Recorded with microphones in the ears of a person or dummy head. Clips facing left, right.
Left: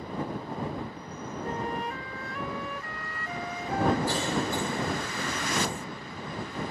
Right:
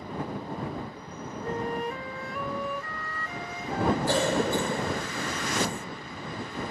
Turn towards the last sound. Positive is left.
turn(degrees=-50)  # may be behind; listen again after turning